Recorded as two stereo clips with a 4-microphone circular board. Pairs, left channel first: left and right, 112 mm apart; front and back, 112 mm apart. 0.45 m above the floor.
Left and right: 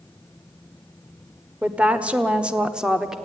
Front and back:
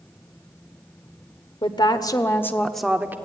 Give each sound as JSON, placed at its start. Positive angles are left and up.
{"t": 1.6, "sound": "a woman speaking", "azimuth_deg": -15, "distance_m": 1.5}